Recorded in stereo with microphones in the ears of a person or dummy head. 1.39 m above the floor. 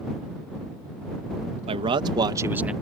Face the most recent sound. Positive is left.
turn(degrees=-10)  # may be behind; listen again after turning